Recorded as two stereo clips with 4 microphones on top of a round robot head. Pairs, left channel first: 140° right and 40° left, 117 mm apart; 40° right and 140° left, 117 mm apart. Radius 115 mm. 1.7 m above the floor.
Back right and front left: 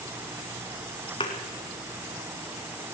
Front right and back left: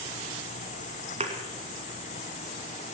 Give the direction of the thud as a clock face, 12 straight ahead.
6 o'clock.